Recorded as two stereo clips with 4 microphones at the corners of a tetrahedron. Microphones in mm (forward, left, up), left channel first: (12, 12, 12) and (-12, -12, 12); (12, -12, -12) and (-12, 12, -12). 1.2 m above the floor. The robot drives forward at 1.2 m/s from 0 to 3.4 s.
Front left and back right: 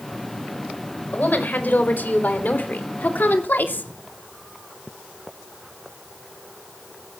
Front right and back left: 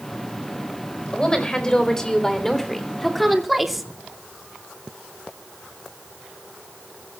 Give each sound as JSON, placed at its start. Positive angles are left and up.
{"t": 1.1, "sound": "a woman speaking", "azimuth_deg": 20, "distance_m": 5.0}